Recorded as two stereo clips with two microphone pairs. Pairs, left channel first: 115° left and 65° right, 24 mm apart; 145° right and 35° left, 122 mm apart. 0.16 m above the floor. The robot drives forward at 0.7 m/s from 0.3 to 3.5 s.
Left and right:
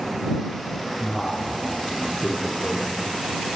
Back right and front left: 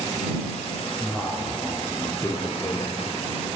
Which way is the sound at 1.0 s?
135° left.